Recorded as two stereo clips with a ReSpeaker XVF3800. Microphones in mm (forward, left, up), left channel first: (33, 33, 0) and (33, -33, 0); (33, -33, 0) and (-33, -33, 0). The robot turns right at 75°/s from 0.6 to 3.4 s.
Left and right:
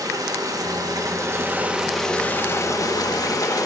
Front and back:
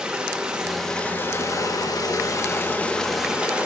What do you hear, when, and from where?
0.0 s running water: 100° right, 1.0 m; by 3.7 s 110° left, 1.0 m